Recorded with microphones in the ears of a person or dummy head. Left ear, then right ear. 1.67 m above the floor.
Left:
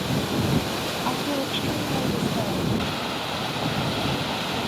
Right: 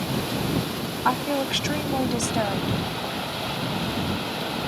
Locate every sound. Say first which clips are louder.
1.1 s a woman speaking: right 7 dB; 60° right (ahead or behind)